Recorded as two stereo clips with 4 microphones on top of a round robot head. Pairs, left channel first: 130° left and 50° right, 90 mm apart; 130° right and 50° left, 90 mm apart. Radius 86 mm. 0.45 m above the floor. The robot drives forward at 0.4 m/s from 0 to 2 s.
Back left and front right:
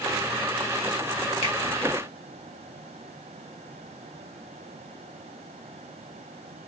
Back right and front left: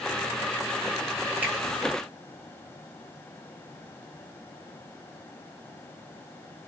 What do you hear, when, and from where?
1.4 s a finger snap: 120° left, 2 m; by 1.5 s 125° left, 2 m